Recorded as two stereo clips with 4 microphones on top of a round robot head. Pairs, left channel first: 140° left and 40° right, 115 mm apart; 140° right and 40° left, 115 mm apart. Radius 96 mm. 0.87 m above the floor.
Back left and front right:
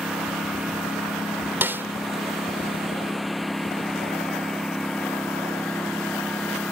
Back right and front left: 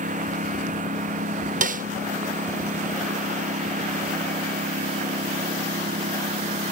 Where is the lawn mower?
45° left; by 6.7 s 55° left.